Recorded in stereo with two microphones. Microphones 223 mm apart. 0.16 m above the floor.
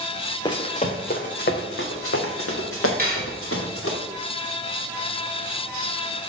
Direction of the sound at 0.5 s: 20° left (ahead or behind).